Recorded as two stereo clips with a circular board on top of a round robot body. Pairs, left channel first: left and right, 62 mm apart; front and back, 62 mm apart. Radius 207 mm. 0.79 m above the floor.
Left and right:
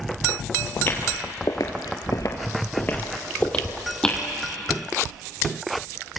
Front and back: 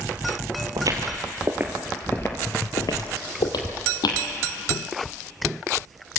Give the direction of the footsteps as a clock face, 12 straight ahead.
7 o'clock.